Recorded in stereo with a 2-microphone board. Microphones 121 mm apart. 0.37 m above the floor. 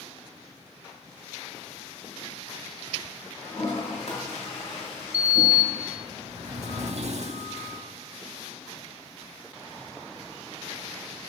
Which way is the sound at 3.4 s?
60° left (ahead or behind).